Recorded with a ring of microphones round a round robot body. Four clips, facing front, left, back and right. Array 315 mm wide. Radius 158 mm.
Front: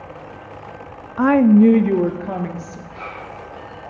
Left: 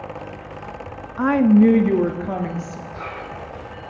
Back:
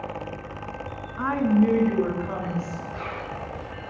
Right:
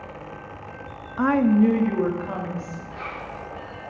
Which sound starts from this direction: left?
A zipper, at 2.9 s.